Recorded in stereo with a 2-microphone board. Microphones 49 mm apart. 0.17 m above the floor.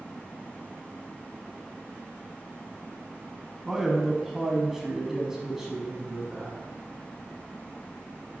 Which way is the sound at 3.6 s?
5° right (ahead or behind).